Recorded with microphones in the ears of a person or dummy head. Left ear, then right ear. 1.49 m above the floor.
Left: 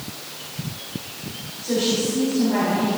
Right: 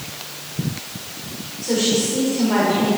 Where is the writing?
No writing in this recording.